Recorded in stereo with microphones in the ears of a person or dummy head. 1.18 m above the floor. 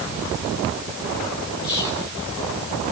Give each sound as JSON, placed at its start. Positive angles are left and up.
{"t": 1.6, "sound": "whispering", "side_deg": 25, "distance_m": 4.0}